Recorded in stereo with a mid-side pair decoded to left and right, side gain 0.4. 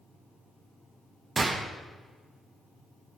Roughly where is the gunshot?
Ahead right.